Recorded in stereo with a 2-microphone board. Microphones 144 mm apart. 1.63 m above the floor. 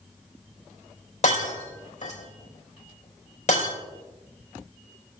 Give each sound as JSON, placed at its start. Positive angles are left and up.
{"t": 1.2, "sound": "breaking glass", "side_deg": 50, "distance_m": 3.5}